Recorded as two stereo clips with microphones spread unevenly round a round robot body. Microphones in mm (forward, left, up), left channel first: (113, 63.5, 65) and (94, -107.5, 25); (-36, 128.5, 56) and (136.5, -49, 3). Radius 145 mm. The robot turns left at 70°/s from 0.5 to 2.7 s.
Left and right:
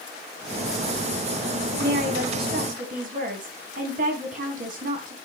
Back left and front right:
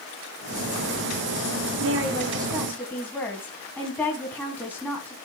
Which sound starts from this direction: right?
A woman speaking, at 1.8 s.